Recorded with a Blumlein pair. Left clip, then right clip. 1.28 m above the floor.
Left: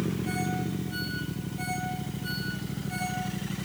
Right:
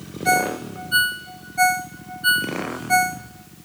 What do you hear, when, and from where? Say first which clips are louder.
0.2 s a ringtone: right 12 dB; 50° right, 0.6 m